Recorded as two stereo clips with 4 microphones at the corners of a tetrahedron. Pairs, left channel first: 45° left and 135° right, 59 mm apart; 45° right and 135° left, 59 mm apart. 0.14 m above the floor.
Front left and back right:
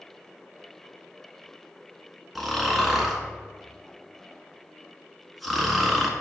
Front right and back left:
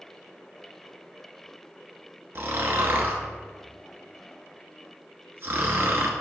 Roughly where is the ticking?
No ticking in this recording.